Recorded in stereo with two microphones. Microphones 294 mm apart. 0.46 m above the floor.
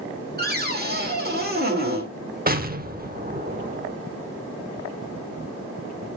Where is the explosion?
30° right (ahead or behind), 0.8 m.